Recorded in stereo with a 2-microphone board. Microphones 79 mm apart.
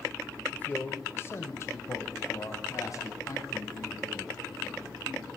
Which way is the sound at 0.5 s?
15° left (ahead or behind).